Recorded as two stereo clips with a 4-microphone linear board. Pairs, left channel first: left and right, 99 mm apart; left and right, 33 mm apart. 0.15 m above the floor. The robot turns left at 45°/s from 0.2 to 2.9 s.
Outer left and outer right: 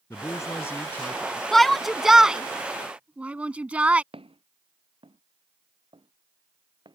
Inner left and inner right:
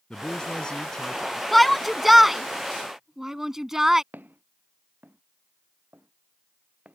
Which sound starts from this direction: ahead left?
A man speaking, at 0.1 s.